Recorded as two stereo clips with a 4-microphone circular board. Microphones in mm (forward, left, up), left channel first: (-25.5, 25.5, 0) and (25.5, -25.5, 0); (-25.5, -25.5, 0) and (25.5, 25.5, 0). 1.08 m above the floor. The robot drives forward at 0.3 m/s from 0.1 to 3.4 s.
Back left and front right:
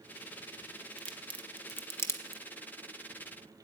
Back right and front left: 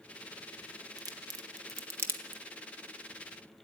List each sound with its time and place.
1.0 s a crack: 60° left, 0.7 m; by 2.4 s 105° left, 0.7 m